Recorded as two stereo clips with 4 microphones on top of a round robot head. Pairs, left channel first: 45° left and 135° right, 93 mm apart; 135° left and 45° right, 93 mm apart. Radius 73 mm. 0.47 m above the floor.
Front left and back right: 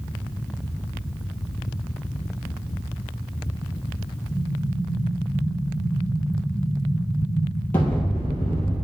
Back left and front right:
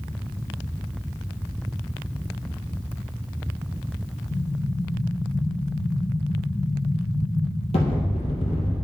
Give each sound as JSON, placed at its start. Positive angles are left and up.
{"t": 4.3, "sound": "an explosion", "azimuth_deg": 115, "distance_m": 2.5}